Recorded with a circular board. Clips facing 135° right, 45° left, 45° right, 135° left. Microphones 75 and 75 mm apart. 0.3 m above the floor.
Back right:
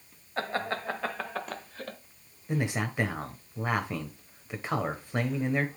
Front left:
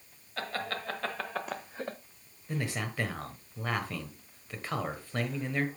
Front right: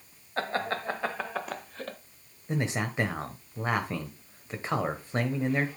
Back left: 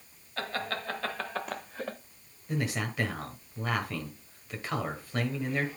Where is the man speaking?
80° right, 1.6 m.